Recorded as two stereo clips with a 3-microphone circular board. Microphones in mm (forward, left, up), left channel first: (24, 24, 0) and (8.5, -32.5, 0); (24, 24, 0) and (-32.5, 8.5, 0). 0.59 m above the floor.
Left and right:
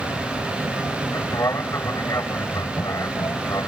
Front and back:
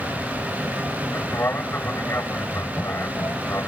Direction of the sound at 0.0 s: 60° left.